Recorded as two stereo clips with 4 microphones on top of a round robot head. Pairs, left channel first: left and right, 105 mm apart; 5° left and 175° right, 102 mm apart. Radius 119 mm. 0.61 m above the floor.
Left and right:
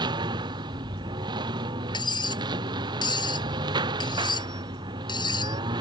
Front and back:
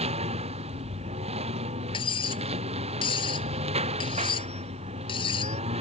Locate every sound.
0.0 s a lawn mower: 145° right
1.9 s cutlery clinking: 45° left